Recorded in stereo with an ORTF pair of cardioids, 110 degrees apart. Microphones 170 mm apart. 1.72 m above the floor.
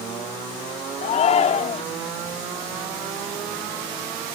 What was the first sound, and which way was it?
A shout, 45° left.